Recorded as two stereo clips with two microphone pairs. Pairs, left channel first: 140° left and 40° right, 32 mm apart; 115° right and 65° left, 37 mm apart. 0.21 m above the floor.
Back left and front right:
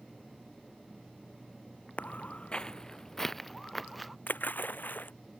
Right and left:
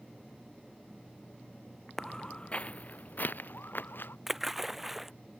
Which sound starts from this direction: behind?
Footsteps, at 2.0 s.